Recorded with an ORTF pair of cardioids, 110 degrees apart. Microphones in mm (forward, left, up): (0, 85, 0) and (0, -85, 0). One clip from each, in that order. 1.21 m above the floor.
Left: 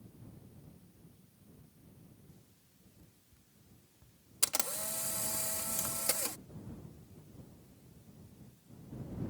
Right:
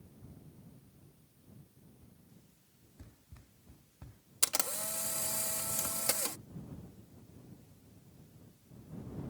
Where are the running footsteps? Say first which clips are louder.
Right 5 dB; 70° right.